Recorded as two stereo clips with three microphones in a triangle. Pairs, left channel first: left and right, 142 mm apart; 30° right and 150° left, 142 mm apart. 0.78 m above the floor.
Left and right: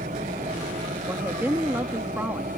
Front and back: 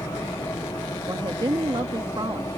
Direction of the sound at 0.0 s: 100° right.